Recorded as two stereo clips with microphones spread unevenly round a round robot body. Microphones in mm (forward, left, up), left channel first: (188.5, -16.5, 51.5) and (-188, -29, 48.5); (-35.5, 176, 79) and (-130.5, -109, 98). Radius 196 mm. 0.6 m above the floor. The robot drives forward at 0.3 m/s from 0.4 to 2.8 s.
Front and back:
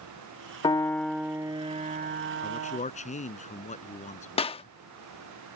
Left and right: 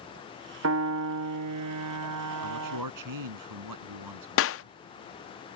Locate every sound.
0.6 s a piano: 75° right; by 2.8 s 130° right
2.4 s a man speaking: 70° right
4.4 s a clap: 75° left